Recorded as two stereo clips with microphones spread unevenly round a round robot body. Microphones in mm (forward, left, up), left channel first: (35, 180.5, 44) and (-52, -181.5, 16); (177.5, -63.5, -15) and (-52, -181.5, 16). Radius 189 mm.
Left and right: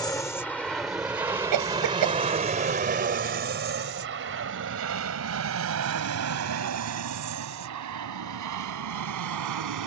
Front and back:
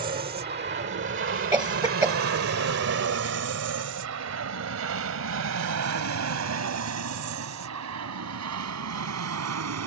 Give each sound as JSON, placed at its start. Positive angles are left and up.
{"t": 0.0, "sound": "an aircraft", "azimuth_deg": 155}
{"t": 1.5, "sound": "a cough", "azimuth_deg": -75}